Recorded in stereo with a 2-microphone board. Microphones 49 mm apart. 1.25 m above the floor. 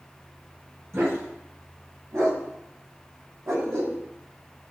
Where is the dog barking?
70° right (ahead or behind), 5 m; by 4.0 s 80° right, 3 m.